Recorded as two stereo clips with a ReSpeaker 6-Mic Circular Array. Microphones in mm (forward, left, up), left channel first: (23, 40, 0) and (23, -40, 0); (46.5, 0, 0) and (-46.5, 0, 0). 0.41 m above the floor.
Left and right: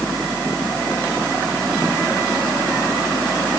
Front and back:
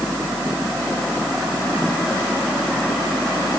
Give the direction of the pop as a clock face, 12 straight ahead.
I don't hear a pop.